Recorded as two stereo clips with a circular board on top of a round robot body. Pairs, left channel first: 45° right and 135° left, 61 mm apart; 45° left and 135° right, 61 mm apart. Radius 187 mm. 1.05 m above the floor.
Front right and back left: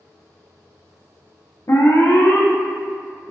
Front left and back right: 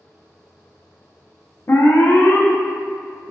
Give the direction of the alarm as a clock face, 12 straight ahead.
12 o'clock.